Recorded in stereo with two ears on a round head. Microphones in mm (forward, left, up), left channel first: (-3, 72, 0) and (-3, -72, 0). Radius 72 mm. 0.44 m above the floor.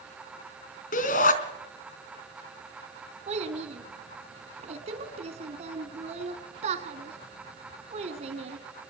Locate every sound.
0.9 s a shout: 55° left (ahead or behind), 3.5 m
3.3 s a child speaking: 45° right (ahead or behind), 2.5 m